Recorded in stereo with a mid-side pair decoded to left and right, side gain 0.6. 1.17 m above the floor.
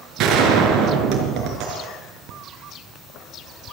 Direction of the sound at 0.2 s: 60° right.